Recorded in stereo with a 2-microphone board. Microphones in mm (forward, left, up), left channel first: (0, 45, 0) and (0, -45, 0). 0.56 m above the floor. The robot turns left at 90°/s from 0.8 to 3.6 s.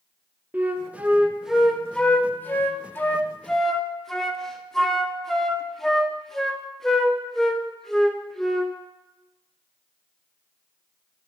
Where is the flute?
20° right (ahead or behind), 0.5 m; by 8.7 s 5° left (ahead or behind), 0.5 m.